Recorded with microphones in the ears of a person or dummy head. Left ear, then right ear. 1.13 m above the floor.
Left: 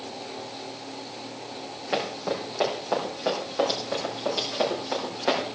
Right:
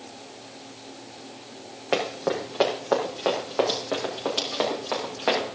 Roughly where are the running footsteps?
Right.